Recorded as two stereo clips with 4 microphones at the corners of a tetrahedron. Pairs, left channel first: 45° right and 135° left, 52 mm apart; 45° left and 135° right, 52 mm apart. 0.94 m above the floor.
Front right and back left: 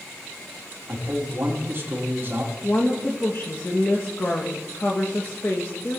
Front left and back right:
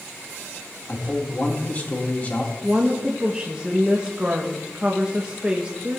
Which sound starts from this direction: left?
A man speaking, at 0.9 s.